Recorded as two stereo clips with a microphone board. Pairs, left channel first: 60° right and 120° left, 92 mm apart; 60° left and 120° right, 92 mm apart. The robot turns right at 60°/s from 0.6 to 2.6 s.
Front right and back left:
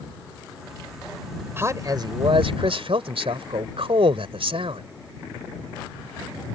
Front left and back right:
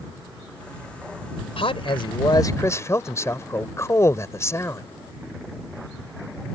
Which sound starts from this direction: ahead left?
A man speaking, at 1.6 s.